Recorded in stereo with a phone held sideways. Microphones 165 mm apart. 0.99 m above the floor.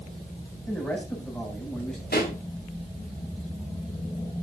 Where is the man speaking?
5° left (ahead or behind), 8.5 m.